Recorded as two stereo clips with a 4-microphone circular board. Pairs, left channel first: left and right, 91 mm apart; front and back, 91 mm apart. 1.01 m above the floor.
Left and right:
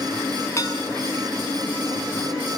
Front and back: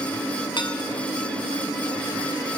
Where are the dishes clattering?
35° left, 6.5 m.